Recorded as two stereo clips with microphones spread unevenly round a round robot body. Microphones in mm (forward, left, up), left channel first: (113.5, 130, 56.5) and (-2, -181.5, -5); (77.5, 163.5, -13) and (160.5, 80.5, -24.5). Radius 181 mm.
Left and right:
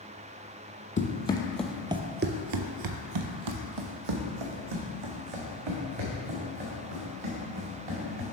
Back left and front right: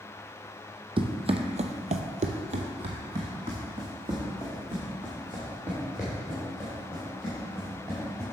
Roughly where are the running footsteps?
Ahead.